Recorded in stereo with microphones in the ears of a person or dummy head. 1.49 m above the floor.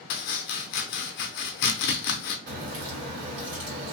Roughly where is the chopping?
Left.